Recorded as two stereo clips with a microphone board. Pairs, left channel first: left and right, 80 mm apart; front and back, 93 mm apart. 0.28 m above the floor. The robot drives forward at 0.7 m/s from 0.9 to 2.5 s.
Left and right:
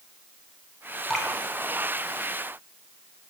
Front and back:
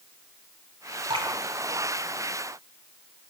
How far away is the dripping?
About 2 m.